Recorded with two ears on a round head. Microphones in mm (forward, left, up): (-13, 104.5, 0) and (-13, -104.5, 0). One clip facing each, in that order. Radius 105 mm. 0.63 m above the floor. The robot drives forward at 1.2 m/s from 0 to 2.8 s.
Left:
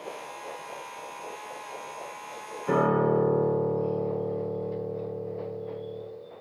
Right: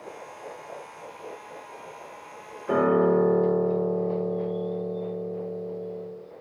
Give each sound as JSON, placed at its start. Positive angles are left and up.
{"t": 2.7, "sound": "a piano", "side_deg": 80, "distance_m": 6.0}